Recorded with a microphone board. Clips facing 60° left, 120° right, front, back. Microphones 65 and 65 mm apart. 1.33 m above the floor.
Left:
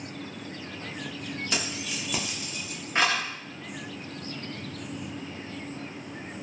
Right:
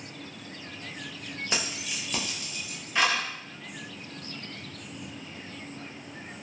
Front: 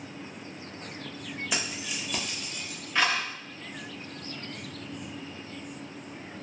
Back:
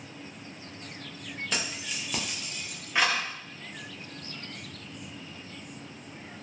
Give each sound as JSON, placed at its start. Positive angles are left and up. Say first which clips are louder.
{"t": 1.5, "sound": "keys jangling", "louder": "right 1 dB, even", "azimuth_deg": -75, "distance_m": 0.6}